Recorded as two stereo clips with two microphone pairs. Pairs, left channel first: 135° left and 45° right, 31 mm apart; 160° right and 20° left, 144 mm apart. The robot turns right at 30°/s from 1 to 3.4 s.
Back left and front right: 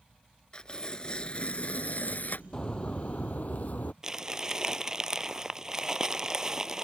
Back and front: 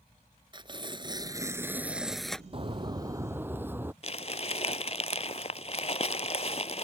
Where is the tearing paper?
75° left; by 2.4 s 120° left.